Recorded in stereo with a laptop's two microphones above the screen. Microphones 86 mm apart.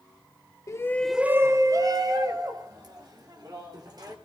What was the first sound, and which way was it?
A shout, 35° left (ahead or behind).